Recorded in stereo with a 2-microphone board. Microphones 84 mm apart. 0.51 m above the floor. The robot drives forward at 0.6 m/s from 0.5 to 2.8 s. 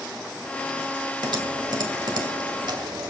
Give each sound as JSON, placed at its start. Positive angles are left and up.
{"t": 1.2, "sound": "typing on a keyboard", "side_deg": -65, "distance_m": 2.0}